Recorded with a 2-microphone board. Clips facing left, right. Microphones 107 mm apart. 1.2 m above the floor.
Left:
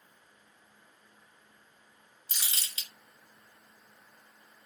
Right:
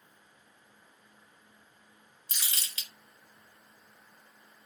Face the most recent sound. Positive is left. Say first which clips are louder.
# even
turn(degrees=25)  # may be behind; listen again after turning